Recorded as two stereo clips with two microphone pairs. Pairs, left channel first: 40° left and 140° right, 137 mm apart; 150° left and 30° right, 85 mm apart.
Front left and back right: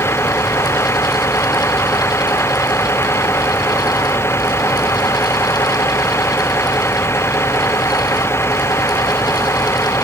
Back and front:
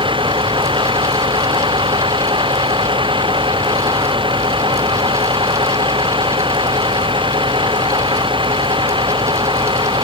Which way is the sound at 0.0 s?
30° right.